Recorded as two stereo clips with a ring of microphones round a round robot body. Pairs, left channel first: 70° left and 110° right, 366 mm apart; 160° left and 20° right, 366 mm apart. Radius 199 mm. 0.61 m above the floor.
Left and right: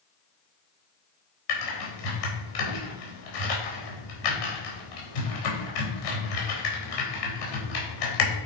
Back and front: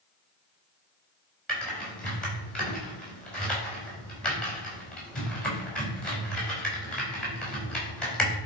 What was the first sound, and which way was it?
Typing on a keyboard, 70° left.